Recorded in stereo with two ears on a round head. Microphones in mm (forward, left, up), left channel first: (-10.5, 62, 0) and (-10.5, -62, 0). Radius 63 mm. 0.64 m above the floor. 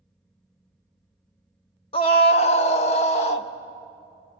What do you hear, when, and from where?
1.9 s a scream: 40° left (ahead or behind), 0.9 m; by 3.5 s 45° left (ahead or behind), 1.5 m